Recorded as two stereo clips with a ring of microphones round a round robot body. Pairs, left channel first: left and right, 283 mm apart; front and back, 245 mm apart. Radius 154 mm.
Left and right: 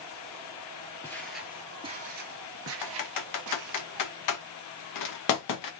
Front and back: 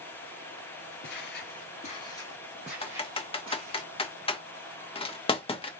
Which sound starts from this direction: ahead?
Footsteps, at 1.0 s.